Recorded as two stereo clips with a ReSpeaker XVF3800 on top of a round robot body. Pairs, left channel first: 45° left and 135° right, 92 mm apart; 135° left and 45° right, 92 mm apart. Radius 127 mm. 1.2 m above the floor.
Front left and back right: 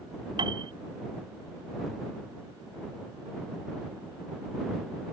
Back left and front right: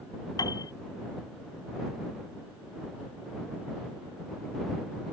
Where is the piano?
175° right.